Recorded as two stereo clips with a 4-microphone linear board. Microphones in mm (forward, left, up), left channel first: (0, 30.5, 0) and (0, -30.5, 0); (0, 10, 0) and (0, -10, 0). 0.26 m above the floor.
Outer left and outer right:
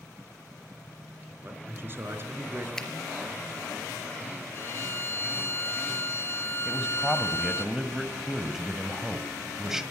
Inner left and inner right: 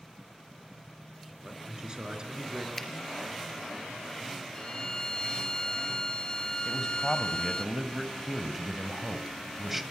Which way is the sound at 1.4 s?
35° right (ahead or behind).